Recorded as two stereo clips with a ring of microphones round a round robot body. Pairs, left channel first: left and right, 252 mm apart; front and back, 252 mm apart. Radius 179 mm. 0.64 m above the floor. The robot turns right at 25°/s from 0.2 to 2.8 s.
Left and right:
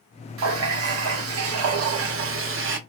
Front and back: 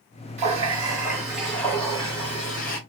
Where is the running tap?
115° right, 0.8 m; by 2.8 s 55° right, 0.8 m.